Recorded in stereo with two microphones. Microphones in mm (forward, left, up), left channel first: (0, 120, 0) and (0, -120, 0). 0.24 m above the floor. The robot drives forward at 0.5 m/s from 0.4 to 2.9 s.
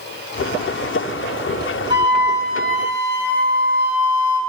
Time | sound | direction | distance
1.9 | a flute | 20° right (ahead or behind) | 1.5 m